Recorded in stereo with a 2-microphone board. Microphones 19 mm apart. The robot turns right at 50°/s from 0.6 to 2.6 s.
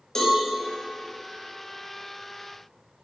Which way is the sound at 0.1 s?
35° left (ahead or behind).